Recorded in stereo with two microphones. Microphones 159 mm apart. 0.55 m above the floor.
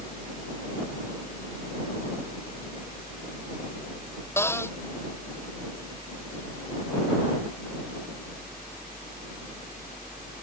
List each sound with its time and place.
4.4 s a cupboard door: 15° left (ahead or behind)